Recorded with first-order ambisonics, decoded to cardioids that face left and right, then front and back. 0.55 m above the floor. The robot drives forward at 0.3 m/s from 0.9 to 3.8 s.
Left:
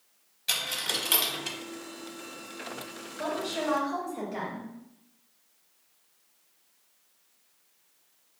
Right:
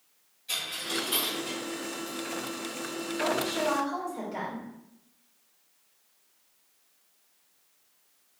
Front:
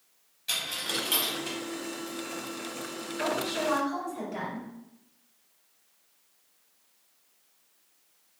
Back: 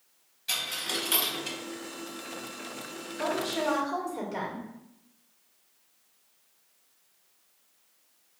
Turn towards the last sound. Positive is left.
turn(degrees=-175)